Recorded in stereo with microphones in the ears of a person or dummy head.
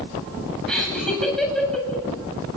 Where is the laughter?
Centre (ahead or behind), 9.5 m.